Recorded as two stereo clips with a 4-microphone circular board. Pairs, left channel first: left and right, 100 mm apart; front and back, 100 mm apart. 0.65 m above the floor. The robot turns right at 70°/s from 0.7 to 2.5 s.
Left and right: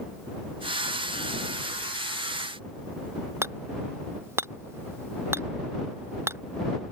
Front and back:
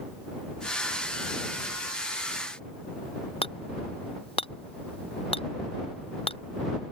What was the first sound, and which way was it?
Hammering, 25° right.